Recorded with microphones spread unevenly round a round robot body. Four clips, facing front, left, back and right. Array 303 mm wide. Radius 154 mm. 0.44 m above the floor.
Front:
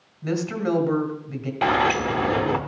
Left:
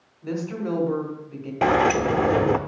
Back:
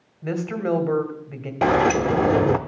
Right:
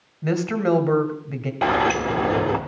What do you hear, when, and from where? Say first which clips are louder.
0.2 s a woman speaking: right 7 dB, even; 90° right, 2.0 m
1.6 s a sliding door: left 1 dB, back 3 dB; 165° left, 0.6 m